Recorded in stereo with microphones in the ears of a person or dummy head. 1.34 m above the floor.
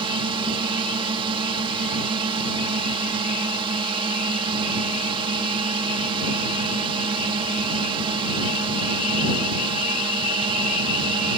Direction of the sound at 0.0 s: 20° right (ahead or behind).